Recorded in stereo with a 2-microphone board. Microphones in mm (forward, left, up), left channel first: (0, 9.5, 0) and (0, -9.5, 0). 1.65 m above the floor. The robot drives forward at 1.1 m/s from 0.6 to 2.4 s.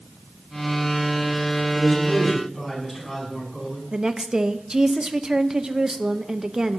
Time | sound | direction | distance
1.8 | a man speaking | 15° left (ahead or behind) | 5.5 m
3.9 | a woman speaking | 30° right (ahead or behind) | 0.8 m